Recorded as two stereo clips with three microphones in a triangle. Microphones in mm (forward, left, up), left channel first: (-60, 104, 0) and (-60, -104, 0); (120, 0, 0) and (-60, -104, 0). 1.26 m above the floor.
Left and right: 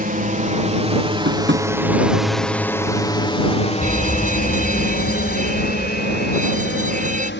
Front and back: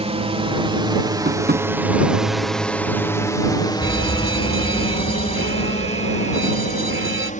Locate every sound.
0.0 s a drone: 105° right; by 7.4 s 80° left
1.2 s tapping: 115° right
3.8 s a fire alarm: 140° right